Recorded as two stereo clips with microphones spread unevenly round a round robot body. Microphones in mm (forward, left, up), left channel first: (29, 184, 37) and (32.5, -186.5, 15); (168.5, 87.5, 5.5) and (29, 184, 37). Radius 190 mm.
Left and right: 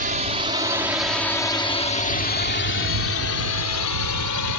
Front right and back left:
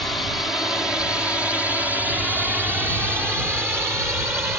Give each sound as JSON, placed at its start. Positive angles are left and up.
{"t": 0.0, "sound": "a drone", "azimuth_deg": -95}